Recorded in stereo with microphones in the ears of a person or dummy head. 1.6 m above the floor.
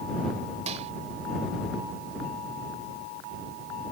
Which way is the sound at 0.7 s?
40° right (ahead or behind).